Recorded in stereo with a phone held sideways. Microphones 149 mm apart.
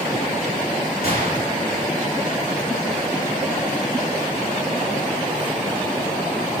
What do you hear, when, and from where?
1.0 s a gunshot: 85° left, 8.5 m